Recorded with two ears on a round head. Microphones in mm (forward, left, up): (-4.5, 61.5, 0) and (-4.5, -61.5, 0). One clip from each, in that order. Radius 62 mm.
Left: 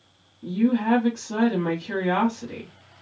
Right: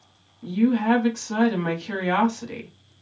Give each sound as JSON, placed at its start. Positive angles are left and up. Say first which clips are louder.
{"t": 0.4, "sound": "a woman speaking", "louder": "right 1 dB", "side_deg": -50, "distance_m": 1.3}